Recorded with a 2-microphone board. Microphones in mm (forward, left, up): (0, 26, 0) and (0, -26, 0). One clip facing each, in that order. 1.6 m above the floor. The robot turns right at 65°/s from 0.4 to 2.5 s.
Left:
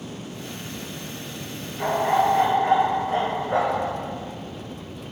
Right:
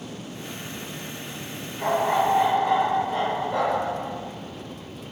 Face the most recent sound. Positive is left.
turn(degrees=70)